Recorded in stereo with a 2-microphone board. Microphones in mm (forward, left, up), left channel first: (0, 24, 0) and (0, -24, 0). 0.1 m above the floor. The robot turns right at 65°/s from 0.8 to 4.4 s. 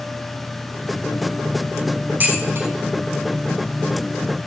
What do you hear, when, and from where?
2.2 s dishes clattering: 35° right (ahead or behind), 3.5 m; by 2.7 s 60° right (ahead or behind), 3.5 m